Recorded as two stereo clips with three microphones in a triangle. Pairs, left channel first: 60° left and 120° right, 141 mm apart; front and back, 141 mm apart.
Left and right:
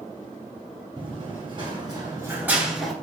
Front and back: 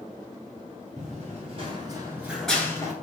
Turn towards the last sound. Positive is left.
turn(degrees=-25)